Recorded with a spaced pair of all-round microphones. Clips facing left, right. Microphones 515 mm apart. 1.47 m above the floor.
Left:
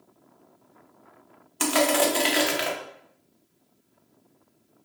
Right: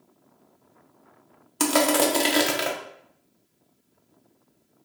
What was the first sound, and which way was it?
Crushing, 65° right (ahead or behind).